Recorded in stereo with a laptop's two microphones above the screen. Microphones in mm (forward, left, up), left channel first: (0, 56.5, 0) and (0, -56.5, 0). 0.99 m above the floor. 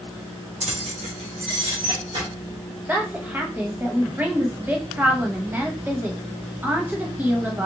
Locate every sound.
0.6 s keys jangling: 70° right (ahead or behind), 0.5 m; by 2.3 s 50° right (ahead or behind), 1.6 m
2.9 s a woman speaking: 15° right (ahead or behind), 0.8 m